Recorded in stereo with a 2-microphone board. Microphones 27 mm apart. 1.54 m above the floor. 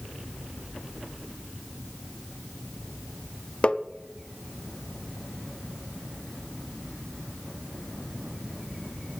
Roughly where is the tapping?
Left.